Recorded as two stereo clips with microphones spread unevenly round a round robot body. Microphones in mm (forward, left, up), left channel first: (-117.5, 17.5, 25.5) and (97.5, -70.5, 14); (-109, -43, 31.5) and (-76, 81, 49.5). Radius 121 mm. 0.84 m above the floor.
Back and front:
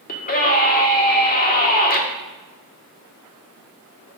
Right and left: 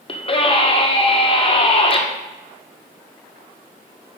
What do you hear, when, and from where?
0.1 s a scream: 150° right, 1.9 m